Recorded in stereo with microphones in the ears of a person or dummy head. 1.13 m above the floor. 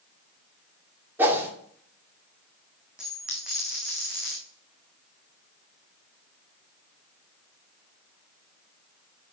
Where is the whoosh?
15° right (ahead or behind), 2.5 m.